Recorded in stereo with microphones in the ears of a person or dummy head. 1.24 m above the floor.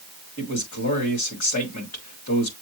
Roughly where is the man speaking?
Left.